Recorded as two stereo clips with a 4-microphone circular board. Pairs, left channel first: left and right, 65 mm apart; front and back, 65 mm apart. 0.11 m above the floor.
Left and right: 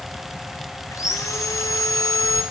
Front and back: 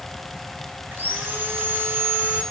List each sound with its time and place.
0.9 s sawing: 125° left, 3.5 m